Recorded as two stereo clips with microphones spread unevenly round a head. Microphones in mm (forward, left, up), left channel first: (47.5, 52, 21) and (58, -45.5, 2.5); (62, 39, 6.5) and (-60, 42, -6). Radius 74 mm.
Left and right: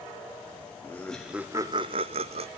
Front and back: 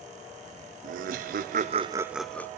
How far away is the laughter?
About 0.8 m.